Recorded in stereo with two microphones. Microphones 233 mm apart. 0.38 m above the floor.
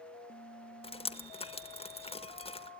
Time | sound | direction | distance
0.8 | dripping | 25° left (ahead or behind) | 1.2 m